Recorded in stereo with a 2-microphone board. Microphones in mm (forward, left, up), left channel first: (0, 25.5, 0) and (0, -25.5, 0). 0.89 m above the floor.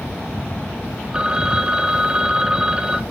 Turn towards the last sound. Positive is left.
turn(degrees=-15)  # may be behind; listen again after turning